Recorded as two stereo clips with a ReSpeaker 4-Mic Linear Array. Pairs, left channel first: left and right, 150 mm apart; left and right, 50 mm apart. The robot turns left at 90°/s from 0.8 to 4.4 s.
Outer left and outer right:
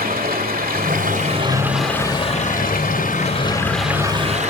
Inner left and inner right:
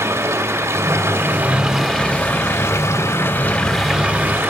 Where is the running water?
90° right, 2.5 m; by 4.5 s 55° right, 2.5 m.